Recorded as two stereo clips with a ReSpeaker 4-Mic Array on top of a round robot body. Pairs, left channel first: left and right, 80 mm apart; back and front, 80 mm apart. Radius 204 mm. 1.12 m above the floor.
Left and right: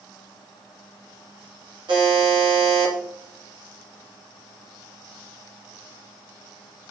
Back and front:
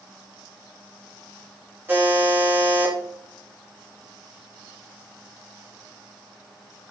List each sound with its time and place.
1.9 s a buzzer: 65° right, 3.5 m